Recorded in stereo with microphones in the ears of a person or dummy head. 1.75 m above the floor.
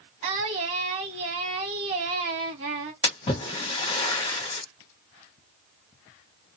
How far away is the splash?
About 1.0 m.